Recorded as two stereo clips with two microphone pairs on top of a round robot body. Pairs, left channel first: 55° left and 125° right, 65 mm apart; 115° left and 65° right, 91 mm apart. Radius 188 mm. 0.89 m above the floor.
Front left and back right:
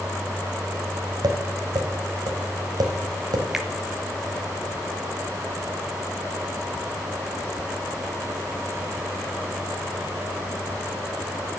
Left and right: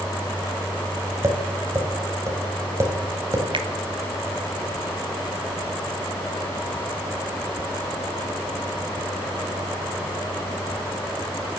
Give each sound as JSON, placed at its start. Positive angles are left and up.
{"t": 1.2, "sound": "tapping", "azimuth_deg": -125, "distance_m": 3.0}
{"t": 3.5, "sound": "a finger snap", "azimuth_deg": -45, "distance_m": 1.8}